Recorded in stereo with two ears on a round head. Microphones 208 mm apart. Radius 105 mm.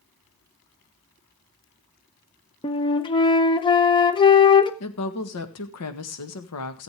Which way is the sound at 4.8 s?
70° left (ahead or behind).